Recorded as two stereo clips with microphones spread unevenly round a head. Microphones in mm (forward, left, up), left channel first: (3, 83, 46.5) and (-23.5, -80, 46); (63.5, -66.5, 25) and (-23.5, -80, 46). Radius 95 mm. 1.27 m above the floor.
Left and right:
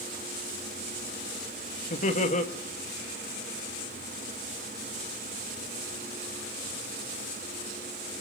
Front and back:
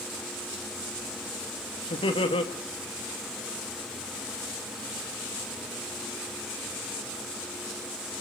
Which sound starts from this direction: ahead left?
Laughter, at 1.9 s.